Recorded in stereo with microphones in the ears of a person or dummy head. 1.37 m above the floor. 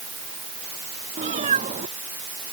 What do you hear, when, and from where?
1.2 s a cat meowing: 40° right (ahead or behind)